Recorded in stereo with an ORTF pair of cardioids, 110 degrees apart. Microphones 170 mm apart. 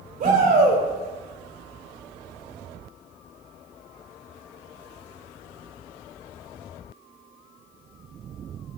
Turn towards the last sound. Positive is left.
turn(degrees=-60)